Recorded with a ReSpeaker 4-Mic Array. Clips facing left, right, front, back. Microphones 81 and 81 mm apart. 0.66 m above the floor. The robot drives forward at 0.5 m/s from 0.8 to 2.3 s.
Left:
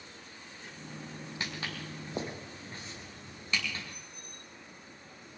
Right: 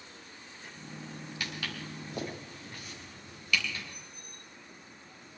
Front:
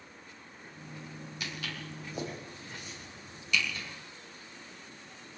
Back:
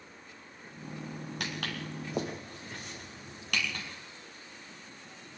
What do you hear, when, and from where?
1.4 s footsteps: 155° left, 4 m; by 3.8 s 150° left, 6 m